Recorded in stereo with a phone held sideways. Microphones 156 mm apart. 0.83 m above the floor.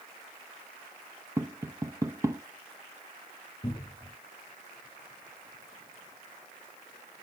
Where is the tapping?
20° right (ahead or behind), 0.6 m.